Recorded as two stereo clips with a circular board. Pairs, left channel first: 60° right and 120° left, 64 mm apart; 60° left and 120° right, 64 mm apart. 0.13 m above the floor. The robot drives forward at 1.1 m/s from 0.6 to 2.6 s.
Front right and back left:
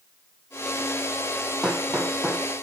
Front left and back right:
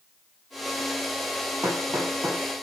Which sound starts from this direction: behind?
Hammering, at 1.6 s.